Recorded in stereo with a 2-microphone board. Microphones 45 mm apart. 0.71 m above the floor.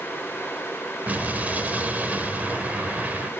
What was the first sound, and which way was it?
An explosion, 35° right (ahead or behind).